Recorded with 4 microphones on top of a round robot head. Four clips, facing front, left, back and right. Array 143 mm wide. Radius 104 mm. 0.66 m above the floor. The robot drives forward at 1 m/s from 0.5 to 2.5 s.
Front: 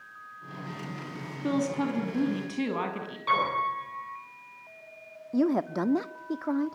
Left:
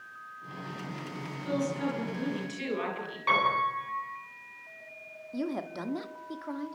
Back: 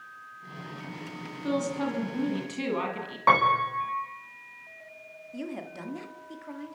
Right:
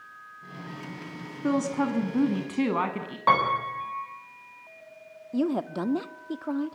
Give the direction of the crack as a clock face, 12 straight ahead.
I don't hear a crack.